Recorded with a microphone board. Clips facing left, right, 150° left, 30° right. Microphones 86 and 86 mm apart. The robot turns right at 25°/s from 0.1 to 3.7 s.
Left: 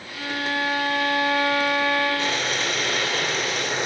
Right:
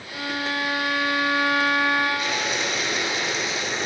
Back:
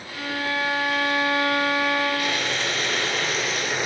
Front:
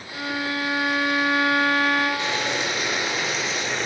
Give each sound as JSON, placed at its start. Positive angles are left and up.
{"t": 0.1, "sound": "a violin", "azimuth_deg": -90, "distance_m": 3.0}
{"t": 2.2, "sound": "boiling", "azimuth_deg": 30, "distance_m": 2.0}